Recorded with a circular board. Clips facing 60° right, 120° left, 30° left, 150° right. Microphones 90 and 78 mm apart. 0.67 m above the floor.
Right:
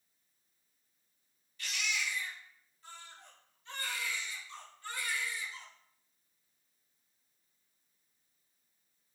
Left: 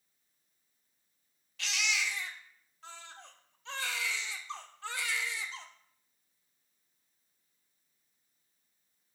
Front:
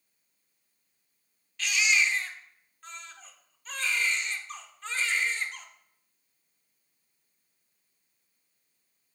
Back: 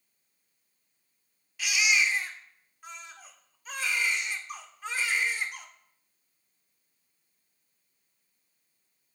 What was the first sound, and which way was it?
A baby crying, 130° left.